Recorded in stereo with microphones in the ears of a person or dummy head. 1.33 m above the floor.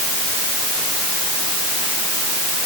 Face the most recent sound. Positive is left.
No sound to turn to.